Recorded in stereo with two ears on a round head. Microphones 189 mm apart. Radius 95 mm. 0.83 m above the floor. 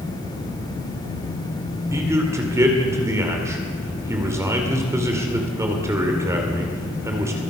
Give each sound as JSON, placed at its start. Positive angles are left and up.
{"t": 1.9, "sound": "a man speaking", "side_deg": -15, "distance_m": 2.0}